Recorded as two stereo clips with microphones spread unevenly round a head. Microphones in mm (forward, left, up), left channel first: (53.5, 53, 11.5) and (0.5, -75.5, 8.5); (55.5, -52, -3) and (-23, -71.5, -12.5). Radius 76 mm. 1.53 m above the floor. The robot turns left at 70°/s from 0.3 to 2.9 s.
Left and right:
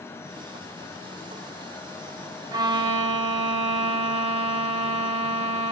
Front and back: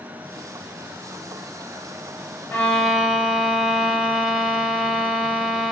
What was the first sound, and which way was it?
A violin, 50° right.